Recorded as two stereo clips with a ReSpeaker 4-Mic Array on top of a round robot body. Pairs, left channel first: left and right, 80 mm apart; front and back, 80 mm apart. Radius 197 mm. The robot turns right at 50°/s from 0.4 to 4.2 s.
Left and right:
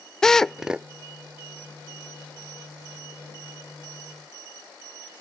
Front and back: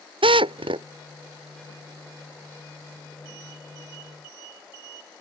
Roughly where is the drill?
Behind.